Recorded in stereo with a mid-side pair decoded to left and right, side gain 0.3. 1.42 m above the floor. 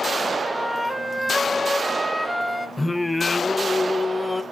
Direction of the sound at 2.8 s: 15° left.